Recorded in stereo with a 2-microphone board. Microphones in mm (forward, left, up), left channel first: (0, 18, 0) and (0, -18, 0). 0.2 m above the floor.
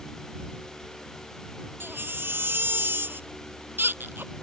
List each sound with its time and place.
1.8 s a baby crying: 80° right